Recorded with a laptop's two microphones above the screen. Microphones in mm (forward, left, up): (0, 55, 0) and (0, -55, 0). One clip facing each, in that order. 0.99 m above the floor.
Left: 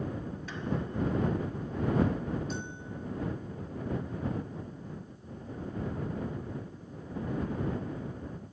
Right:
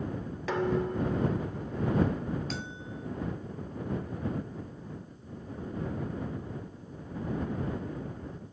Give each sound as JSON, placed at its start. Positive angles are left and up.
{"t": 0.5, "sound": "dishes clattering", "side_deg": -80}
{"t": 2.5, "sound": "a bell", "side_deg": -85}